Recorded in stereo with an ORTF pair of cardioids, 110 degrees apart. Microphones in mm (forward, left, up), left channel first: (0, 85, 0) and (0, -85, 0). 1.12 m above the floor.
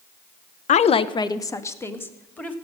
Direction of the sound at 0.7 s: 50° left.